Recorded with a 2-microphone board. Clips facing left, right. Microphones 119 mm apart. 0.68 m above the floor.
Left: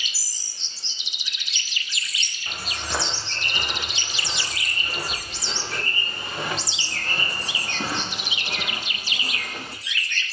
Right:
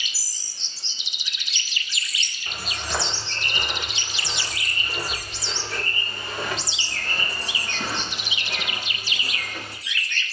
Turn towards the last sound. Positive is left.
turn(degrees=50)  # may be behind; listen again after turning